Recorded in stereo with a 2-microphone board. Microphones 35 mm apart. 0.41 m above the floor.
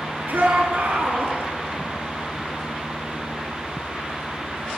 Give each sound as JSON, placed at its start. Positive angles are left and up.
{"t": 0.3, "sound": "a shout", "side_deg": -70, "distance_m": 5.5}